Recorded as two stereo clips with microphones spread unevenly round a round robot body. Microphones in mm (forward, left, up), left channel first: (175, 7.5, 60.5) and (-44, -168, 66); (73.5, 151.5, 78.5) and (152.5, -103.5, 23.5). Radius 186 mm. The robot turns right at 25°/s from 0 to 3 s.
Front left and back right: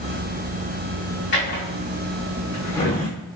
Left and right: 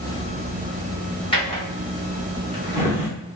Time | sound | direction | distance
1.3 | a drawer | 70° left | 0.6 m